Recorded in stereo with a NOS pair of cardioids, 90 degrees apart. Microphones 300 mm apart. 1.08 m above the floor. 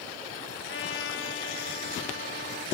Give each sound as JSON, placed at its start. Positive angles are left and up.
{"t": 0.6, "sound": "a trumpet", "azimuth_deg": 35, "distance_m": 3.5}